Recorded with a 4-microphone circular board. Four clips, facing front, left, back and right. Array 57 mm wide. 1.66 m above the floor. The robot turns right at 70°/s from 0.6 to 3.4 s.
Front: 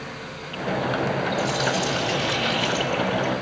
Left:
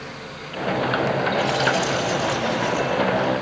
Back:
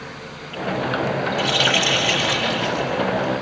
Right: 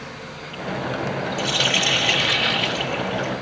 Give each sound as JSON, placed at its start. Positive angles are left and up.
{"t": 1.4, "sound": "a running tap", "azimuth_deg": -165, "distance_m": 6.0}